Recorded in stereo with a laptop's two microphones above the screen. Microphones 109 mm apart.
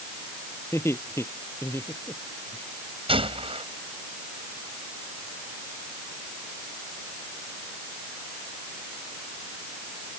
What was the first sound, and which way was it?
Laughter, 25° left (ahead or behind).